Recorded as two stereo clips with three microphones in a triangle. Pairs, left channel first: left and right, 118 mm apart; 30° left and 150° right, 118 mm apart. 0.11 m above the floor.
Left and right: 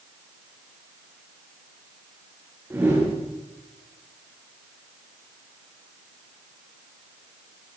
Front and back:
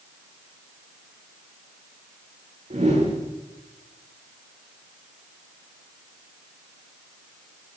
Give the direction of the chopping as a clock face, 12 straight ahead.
I don't hear chopping.